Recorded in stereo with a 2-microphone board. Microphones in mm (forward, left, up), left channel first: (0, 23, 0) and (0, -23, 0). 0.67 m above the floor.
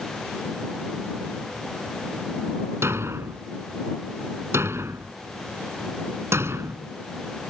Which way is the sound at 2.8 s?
75° right (ahead or behind).